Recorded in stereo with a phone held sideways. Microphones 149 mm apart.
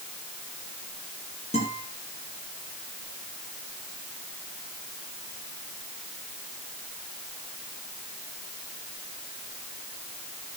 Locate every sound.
1.5 s a guitar: 45° left (ahead or behind), 10 m